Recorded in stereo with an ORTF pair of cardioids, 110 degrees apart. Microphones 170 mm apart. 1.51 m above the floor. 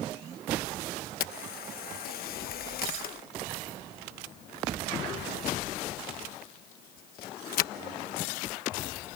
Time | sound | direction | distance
1.2 | a camera shutter | 65° left | ?